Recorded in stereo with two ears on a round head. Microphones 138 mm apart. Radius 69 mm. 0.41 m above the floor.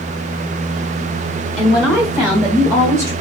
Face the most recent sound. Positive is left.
turn(degrees=-25)  # may be behind; listen again after turning